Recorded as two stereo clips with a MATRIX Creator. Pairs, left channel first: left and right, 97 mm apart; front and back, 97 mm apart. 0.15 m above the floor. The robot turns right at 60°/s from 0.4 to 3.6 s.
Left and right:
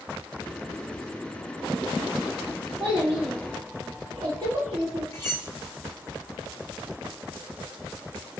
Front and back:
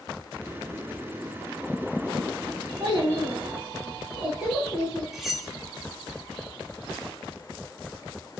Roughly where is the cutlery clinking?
Left.